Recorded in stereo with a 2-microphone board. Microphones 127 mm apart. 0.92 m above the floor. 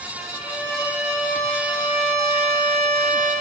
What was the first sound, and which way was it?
A violin, 30° left (ahead or behind).